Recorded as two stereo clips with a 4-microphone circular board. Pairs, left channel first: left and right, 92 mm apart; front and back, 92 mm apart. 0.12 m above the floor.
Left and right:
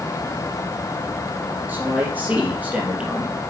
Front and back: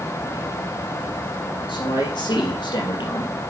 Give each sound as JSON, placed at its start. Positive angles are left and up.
{"t": 1.7, "sound": "a man speaking", "azimuth_deg": -20, "distance_m": 4.0}